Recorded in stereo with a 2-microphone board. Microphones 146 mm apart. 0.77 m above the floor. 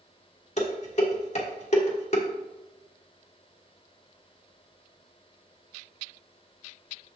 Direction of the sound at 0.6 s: 55° left (ahead or behind).